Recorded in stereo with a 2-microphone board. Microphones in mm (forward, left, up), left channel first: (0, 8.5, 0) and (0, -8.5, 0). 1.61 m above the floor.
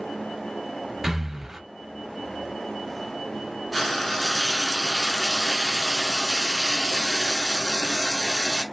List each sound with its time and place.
1.0 s breathing: 20° right (ahead or behind), 0.8 m
3.7 s frying: 15° left (ahead or behind), 1.2 m